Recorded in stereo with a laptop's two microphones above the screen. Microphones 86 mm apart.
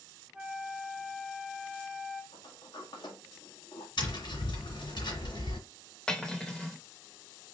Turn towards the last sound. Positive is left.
turn(degrees=10)  # may be behind; listen again after turning